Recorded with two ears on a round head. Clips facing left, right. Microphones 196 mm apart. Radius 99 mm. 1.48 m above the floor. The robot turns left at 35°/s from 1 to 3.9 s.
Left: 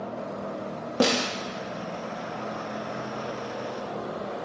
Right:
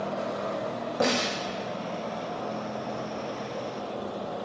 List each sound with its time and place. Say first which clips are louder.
1.0 s a snare drum: left 3 dB; 45° left (ahead or behind), 0.7 m; by 1.3 s 50° left (ahead or behind), 0.7 m